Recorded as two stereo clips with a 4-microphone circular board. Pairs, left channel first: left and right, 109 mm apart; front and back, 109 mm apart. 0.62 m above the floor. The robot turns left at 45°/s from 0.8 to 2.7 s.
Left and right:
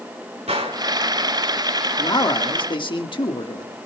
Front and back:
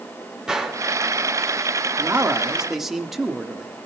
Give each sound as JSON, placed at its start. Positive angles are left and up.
{"t": 0.5, "sound": "a gunshot", "azimuth_deg": -100, "distance_m": 3.0}
{"t": 2.0, "sound": "a man speaking", "azimuth_deg": 125, "distance_m": 1.4}